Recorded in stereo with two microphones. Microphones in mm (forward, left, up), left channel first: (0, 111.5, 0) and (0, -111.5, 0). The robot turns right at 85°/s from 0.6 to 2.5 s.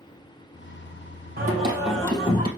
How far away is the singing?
About 2.5 m.